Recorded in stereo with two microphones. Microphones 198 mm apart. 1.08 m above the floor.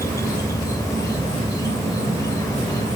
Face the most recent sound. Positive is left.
turn(degrees=15)  # may be behind; listen again after turning